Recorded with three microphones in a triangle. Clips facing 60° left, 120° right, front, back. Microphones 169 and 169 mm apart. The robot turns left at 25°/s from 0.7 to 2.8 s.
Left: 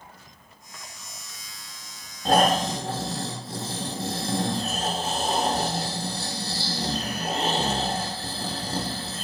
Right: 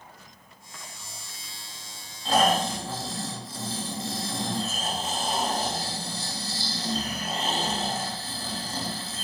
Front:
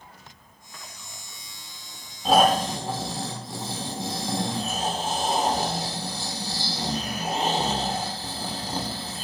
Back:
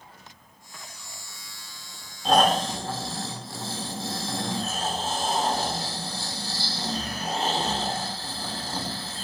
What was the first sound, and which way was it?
Snoring, 85° left.